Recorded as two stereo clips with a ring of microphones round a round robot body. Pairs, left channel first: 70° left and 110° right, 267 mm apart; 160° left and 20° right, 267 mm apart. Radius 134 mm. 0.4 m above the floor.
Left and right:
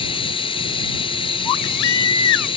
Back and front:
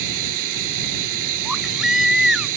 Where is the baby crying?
65° left.